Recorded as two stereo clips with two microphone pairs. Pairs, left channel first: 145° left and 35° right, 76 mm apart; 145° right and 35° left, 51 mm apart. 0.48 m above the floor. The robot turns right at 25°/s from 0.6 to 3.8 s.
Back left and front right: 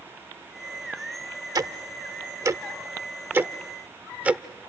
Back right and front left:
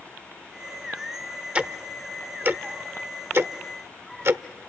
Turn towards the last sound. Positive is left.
turn(degrees=30)